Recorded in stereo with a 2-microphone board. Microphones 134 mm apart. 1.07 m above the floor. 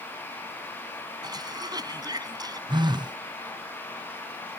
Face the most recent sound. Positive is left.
turn(degrees=-35)  # may be behind; listen again after turning